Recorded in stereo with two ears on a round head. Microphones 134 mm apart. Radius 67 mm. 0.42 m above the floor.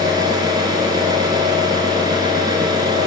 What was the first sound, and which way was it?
An engine running, 25° right (ahead or behind).